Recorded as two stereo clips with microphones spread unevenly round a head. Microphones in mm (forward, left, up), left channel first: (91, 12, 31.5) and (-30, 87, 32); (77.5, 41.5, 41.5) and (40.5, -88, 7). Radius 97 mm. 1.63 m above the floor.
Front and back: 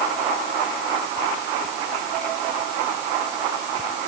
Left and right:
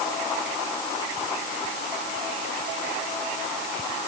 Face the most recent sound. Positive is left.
No sound to turn to.